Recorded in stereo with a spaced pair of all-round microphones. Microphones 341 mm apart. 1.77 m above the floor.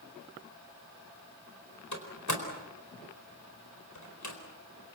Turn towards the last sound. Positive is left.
turn(degrees=60)  # may be behind; listen again after turning